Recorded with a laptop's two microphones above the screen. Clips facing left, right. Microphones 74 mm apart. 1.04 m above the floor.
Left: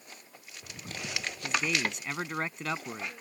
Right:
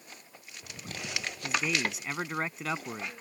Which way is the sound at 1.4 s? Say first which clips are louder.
Even; 5° right (ahead or behind).